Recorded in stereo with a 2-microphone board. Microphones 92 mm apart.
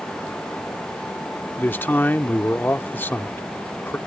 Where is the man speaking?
20° left (ahead or behind).